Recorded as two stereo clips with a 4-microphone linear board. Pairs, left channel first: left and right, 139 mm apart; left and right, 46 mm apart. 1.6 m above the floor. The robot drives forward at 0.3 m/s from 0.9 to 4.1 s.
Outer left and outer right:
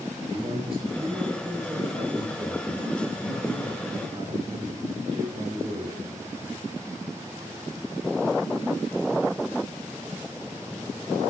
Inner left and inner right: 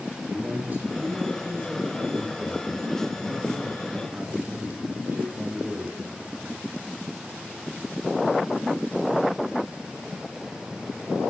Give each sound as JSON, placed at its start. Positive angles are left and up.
{"t": 0.3, "sound": "a man speaking", "side_deg": -45, "distance_m": 7.0}